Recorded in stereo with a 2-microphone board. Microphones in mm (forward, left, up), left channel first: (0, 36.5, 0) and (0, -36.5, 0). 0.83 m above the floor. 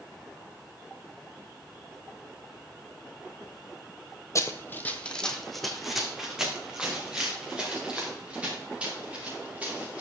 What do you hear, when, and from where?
4.3 s running footsteps: 40° left (ahead or behind), 1.1 m; by 10.0 s 20° right (ahead or behind), 7.5 m